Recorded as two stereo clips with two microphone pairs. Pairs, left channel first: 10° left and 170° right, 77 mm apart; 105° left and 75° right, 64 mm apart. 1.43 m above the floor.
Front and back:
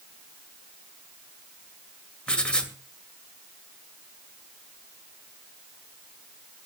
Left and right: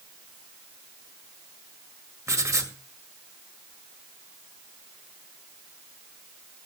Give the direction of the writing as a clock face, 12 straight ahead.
2 o'clock.